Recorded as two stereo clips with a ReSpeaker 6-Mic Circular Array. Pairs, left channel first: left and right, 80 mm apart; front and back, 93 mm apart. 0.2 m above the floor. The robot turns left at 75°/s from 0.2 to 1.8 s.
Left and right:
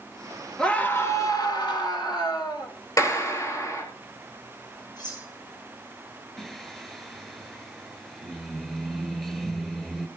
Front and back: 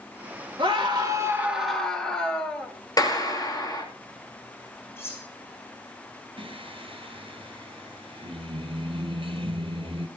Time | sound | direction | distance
0.6 | a scream | 170° left | 3 m
3.0 | a clap | 45° left | 4 m
5.0 | cutlery clinking | 60° left | 6.5 m
6.4 | singing | 175° left | 1.1 m